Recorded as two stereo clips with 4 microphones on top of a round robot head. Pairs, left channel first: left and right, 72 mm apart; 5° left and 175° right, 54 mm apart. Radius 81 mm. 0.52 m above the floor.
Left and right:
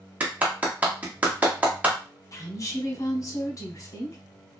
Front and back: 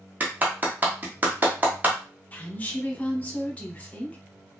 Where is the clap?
145° right, 1.1 m.